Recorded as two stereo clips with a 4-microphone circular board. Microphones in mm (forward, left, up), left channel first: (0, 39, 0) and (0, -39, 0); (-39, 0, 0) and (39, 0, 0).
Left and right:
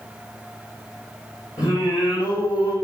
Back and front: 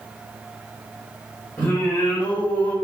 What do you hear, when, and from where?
1.6 s singing: 115° left, 3 m